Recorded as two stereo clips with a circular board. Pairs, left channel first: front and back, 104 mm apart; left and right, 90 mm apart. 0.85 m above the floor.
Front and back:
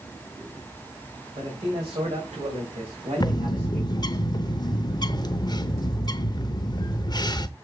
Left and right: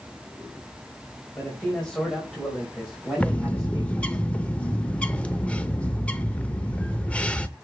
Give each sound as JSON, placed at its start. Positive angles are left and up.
{"t": 1.4, "sound": "a man speaking", "azimuth_deg": 170, "distance_m": 3.5}
{"t": 3.2, "sound": "a bird", "azimuth_deg": 20, "distance_m": 0.6}